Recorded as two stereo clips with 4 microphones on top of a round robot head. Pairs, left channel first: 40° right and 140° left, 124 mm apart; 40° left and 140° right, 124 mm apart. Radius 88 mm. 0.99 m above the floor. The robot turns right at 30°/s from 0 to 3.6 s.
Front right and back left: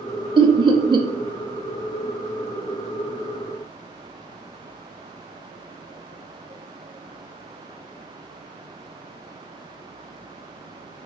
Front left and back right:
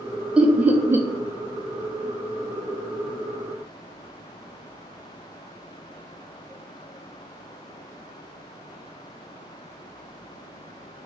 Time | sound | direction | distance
0.4 | laughter | 145° left | 0.5 m